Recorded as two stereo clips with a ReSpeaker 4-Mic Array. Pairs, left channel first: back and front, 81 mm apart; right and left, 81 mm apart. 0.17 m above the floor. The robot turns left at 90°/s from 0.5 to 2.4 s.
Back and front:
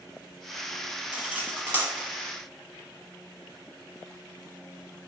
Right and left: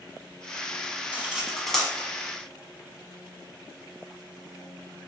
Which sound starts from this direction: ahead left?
Cutlery clinking, at 1.1 s.